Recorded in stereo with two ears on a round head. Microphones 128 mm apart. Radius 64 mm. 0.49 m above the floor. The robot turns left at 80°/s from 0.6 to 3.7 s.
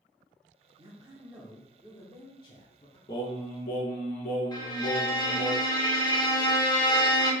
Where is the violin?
30° left (ahead or behind), 1.1 m.